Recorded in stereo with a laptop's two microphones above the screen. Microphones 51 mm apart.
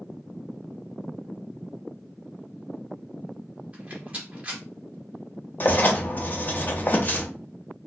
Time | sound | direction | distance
3.7 | a rattle | 25° right (ahead or behind) | 1.2 m
5.6 | writing | 35° left (ahead or behind) | 0.6 m